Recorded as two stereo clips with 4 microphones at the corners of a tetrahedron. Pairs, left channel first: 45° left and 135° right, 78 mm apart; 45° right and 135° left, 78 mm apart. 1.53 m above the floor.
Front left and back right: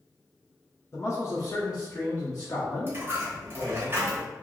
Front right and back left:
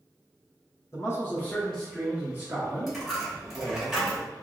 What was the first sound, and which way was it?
A man speaking, straight ahead.